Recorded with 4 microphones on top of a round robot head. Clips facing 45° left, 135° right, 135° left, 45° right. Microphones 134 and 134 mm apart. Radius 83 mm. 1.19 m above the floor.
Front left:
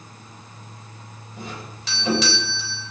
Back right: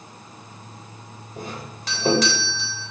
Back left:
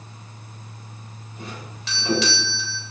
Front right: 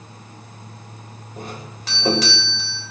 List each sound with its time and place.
1.4 s a doorbell: 90° right, 8.5 m